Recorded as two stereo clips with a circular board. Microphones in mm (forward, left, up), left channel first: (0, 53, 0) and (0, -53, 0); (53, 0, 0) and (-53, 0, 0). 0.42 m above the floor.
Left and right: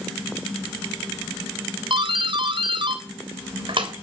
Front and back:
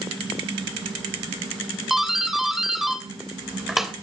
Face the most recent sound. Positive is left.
turn(degrees=-95)